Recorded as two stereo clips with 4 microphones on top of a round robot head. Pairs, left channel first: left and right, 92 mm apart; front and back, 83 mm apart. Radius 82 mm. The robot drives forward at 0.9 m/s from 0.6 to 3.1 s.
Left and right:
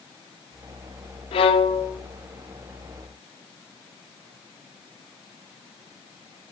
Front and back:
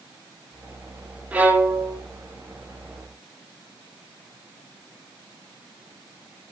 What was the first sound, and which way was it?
A violin, 105° left.